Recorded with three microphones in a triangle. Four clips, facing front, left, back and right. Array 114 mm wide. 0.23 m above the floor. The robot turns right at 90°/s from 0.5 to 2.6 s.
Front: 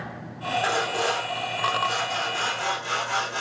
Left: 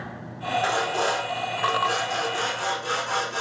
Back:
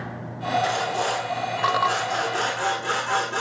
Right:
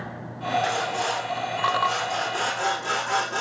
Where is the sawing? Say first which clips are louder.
Left 2 dB, back 1 dB; 55° left, 4.5 m; by 3.4 s 125° right, 4.5 m.